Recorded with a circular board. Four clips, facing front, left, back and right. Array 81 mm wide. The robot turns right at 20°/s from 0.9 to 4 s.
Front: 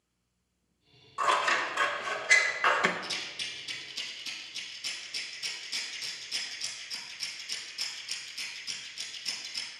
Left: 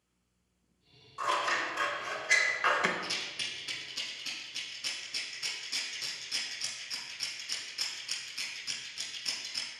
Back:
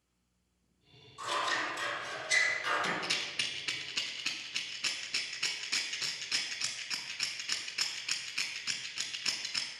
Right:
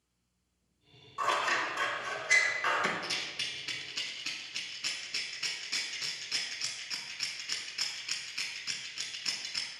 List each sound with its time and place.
1.2 s scissors: 10° right, 0.8 m; by 2.9 s 20° left, 0.8 m
3.0 s a rattle: straight behind, 1.1 m; by 9.7 s 165° right, 1.1 m